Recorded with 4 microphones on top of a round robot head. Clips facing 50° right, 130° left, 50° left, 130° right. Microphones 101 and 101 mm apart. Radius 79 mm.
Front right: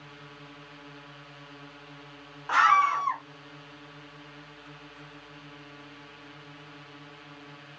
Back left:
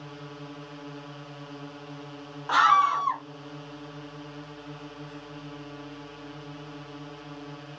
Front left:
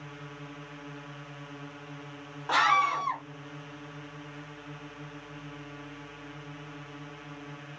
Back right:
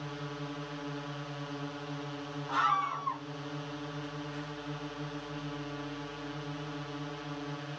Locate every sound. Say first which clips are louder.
0.0 s a drone: back left 7 dB, back right 4 dB; 170° left
2.5 s a scream: back left 1 dB, front left 6 dB; 55° left